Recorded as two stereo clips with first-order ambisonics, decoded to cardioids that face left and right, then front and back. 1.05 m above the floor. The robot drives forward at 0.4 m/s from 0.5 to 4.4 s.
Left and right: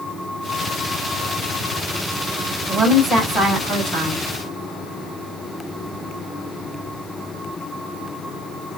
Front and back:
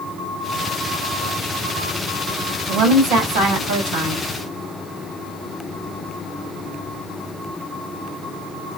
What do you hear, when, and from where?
2.7 s a woman speaking: 165° right, 2.5 m; by 4.2 s 170° right, 3 m